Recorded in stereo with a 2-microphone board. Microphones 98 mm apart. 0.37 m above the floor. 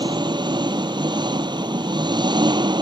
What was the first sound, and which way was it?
An engine running, 50° right (ahead or behind).